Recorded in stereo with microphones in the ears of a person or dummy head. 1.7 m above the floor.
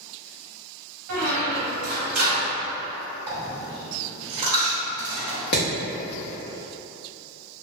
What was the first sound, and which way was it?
A squeak, 60° right (ahead or behind).